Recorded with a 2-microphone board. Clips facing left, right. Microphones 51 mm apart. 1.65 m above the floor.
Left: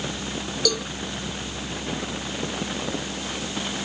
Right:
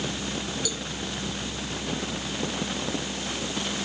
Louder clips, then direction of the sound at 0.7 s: Left 8 dB; 70° left (ahead or behind).